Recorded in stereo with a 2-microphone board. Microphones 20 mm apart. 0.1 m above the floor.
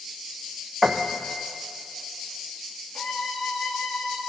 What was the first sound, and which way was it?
A piano, 20° right (ahead or behind).